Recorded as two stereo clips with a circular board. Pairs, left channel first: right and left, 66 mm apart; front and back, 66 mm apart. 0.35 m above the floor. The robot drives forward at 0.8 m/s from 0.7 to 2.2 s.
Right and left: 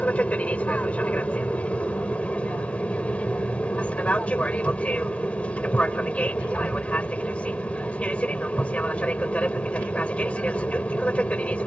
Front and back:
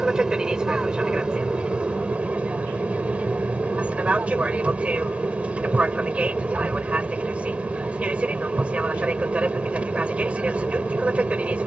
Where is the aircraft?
120° right; by 11.7 s 135° right.